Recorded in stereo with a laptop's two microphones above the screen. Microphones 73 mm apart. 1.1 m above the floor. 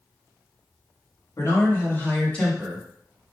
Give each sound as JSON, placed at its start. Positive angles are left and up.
{"t": 1.4, "sound": "a man speaking", "side_deg": 50, "distance_m": 1.6}